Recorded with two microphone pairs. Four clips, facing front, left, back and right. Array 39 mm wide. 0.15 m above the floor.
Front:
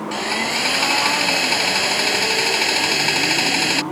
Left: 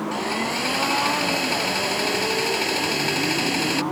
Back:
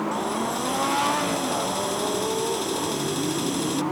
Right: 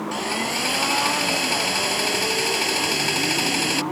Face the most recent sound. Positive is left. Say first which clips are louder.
# right 1 dB, front 4 dB
turn(degrees=0)